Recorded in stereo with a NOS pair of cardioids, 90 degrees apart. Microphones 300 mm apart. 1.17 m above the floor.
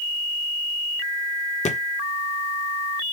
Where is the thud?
25° left, 1.6 m.